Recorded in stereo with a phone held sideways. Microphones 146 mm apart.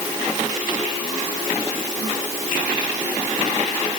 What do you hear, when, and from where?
Only background noise.